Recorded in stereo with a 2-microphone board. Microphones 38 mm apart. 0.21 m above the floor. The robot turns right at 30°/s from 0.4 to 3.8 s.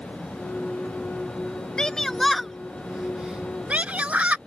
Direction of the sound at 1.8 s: 20° left (ahead or behind).